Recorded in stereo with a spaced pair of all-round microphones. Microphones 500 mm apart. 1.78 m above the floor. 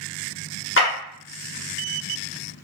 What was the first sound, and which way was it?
A clap, 25° left (ahead or behind).